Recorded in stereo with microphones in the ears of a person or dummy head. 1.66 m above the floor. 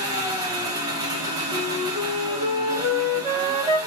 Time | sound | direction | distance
0.0 | an engine running | 25° right (ahead or behind) | 1.4 m
1.5 | a flute | 25° right (ahead or behind) | 1.3 m